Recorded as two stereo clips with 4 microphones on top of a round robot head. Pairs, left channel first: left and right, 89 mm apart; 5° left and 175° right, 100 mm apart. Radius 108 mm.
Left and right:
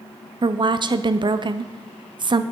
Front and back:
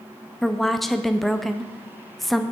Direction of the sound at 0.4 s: 80° right.